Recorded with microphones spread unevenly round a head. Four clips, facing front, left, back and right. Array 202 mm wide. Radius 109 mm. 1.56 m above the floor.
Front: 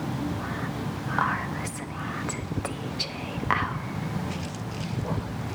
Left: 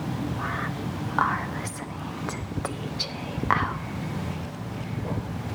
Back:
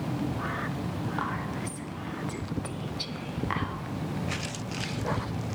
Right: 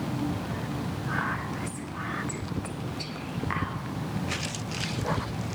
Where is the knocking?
No knocking in this recording.